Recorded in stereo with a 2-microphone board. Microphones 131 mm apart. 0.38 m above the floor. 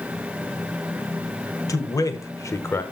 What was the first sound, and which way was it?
A man speaking, 25° left (ahead or behind).